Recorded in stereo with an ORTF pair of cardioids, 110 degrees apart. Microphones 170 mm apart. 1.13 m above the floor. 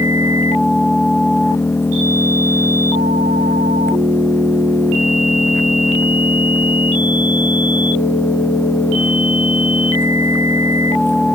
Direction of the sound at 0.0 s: 15° left.